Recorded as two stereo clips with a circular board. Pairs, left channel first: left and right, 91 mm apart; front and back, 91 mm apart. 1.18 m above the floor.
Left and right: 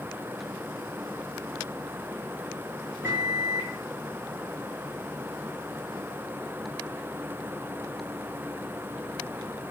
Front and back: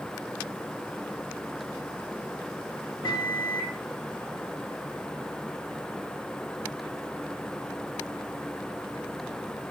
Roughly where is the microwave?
Ahead right.